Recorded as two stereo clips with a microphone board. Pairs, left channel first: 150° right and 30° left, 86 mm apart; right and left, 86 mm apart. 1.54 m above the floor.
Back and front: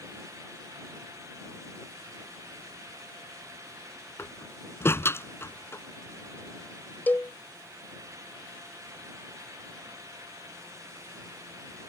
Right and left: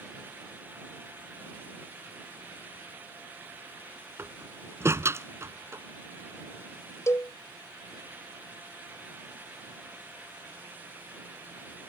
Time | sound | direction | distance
4.2 | a door slam | 150° left | ?
7.1 | a cowbell | 100° right | ?